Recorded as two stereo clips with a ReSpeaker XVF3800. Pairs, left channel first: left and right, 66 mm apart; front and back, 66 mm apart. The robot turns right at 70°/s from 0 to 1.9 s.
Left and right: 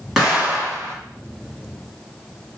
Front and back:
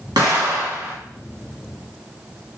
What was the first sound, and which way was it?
An explosion, straight behind.